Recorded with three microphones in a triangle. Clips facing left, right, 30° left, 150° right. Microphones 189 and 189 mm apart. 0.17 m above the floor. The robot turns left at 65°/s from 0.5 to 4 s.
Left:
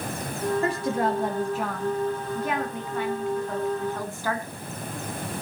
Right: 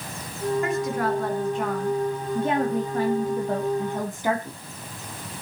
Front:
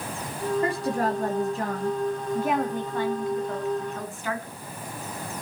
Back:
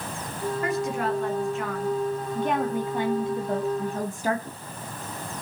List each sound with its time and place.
0.6 s a woman speaking: 70° left, 1.2 m; by 4.6 s 150° right, 1.2 m